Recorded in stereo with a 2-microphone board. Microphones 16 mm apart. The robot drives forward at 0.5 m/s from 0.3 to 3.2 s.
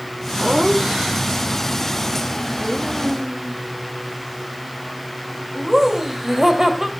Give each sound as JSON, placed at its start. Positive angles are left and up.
{"t": 0.4, "sound": "laughter", "side_deg": -40, "distance_m": 1.6}